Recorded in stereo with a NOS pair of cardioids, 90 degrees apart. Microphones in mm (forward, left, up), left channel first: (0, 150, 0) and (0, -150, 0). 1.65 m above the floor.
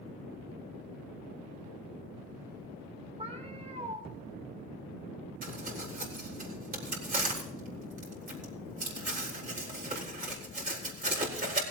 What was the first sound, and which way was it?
A cat meowing, 20° right.